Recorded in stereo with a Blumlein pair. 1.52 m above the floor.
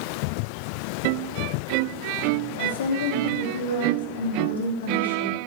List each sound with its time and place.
2.6 s a woman speaking: 65° left, 3 m